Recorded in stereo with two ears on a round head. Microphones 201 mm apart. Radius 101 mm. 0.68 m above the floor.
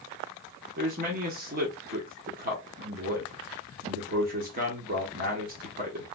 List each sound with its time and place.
0.8 s a man speaking: 40° right (ahead or behind), 1.0 m